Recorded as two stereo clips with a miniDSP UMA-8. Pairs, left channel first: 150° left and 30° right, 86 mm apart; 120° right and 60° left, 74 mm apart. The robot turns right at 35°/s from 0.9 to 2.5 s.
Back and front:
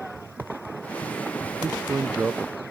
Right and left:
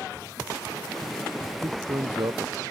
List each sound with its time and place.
1.6 s a man speaking: 25° left; by 2.6 s 55° left